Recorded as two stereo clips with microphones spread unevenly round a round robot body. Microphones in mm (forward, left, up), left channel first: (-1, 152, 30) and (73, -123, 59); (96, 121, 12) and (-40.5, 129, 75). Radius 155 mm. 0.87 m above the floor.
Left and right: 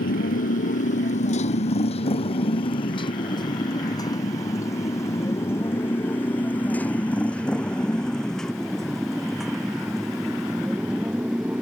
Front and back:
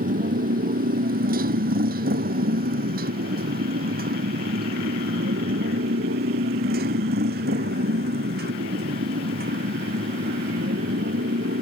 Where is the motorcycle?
170° left; by 11.6 s 160° right.